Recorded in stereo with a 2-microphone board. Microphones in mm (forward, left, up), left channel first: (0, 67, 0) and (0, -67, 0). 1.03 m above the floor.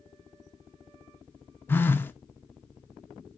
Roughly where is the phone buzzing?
Centre.